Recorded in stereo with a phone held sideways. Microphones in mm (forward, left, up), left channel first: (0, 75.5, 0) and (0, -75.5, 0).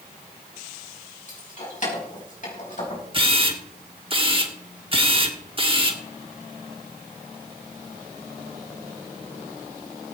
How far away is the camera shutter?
About 1.4 m.